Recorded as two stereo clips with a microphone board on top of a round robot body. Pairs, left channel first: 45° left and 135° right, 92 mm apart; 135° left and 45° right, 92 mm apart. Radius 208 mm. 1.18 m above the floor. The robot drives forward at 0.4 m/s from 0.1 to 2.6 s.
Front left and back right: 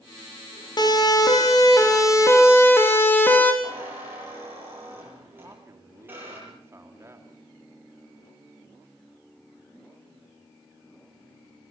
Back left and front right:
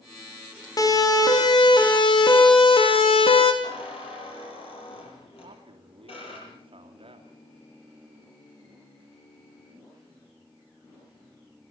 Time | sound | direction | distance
0.8 | a siren | 85° left | 4.5 m
3.6 | a squeak | 155° left | 7 m
5.4 | a man speaking | 70° right | 2.5 m